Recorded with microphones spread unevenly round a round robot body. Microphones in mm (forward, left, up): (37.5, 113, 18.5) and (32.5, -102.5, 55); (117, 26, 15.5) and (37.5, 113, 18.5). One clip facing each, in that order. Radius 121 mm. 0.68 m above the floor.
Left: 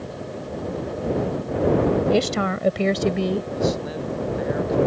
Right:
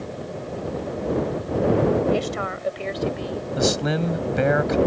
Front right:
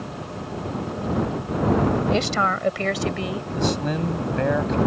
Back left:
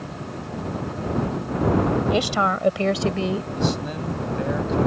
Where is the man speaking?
110° right.